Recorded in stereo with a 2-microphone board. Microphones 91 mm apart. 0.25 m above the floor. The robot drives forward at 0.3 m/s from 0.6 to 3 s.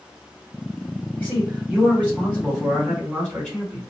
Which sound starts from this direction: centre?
A man speaking, at 1.2 s.